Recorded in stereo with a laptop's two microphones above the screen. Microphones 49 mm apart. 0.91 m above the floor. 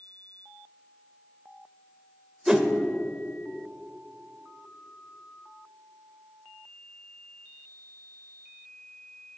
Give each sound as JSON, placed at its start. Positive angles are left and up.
{"t": 2.5, "sound": "a whoosh", "side_deg": -10, "distance_m": 0.8}